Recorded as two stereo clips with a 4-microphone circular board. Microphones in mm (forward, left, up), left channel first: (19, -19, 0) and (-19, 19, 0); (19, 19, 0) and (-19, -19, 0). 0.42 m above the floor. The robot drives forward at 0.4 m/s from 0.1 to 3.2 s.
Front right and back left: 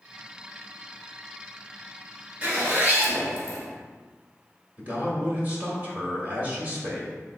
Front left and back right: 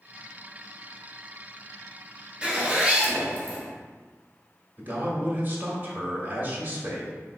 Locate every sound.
2.4 s a zipper: 160° left, 1.2 m; by 3.6 s 165° left, 1.4 m
4.8 s a man speaking: straight behind, 1.3 m